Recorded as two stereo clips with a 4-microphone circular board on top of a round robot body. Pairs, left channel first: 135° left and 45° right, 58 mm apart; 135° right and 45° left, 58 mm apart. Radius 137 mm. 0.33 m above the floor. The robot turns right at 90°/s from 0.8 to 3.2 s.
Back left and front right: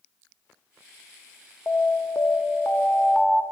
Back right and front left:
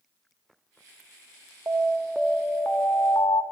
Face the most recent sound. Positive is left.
turn(degrees=-135)